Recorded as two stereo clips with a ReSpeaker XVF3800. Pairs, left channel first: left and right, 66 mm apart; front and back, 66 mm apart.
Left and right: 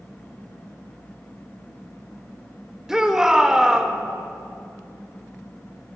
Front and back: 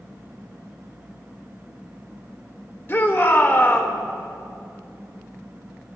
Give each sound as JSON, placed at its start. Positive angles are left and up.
{"t": 2.9, "sound": "a shout", "azimuth_deg": -15, "distance_m": 1.3}